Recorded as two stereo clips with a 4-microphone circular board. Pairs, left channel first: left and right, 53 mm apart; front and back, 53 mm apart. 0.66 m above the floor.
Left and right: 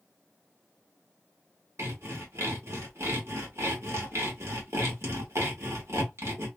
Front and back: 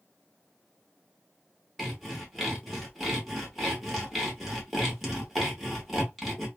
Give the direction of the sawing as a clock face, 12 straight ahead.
3 o'clock.